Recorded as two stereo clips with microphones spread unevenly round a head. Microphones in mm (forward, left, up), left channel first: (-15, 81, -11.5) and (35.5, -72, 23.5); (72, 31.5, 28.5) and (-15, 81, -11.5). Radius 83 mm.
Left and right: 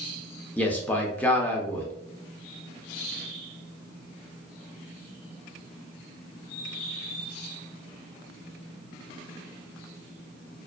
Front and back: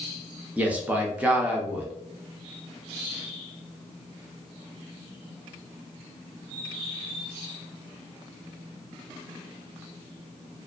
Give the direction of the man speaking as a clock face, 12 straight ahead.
7 o'clock.